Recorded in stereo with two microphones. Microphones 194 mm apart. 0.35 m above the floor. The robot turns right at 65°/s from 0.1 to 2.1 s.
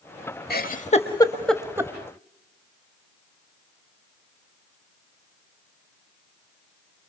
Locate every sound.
0.5 s a giggle: 55° left (ahead or behind), 1.0 m; by 1.9 s 20° right (ahead or behind), 1.0 m